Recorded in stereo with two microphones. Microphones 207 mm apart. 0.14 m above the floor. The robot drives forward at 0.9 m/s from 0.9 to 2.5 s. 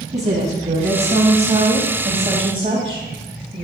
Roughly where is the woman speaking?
Right.